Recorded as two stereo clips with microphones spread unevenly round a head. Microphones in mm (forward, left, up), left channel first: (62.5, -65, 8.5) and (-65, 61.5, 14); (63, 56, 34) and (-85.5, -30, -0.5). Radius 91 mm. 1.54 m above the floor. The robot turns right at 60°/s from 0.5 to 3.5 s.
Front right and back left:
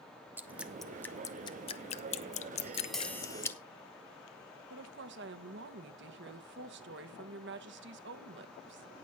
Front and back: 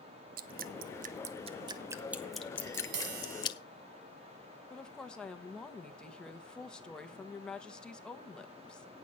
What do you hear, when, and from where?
0.4 s dripping: 155° right, 0.6 m; by 3.6 s 25° left, 0.6 m
2.6 s tapping: 155° right, 1.5 m; by 3.5 s 100° right, 1.5 m
4.7 s a woman speaking: 110° left, 1.3 m